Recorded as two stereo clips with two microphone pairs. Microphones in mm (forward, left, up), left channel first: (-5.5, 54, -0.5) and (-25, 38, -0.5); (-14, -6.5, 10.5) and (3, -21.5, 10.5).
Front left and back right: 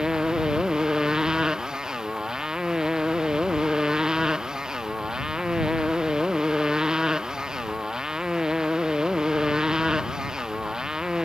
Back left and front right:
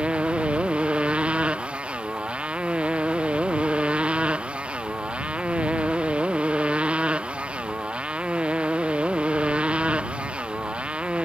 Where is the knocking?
I don't hear knocking.